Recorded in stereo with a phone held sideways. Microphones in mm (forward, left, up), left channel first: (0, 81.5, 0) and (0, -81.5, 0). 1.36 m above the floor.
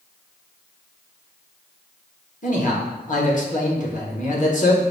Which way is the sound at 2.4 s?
50° left (ahead or behind).